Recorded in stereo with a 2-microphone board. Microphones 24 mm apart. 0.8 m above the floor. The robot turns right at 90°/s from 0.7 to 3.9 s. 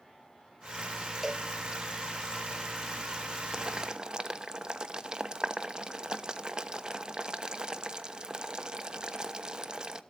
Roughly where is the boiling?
Right.